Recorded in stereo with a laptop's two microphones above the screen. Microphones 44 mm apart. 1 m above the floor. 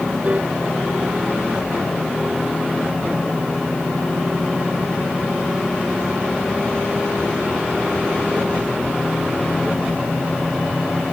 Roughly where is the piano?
Right.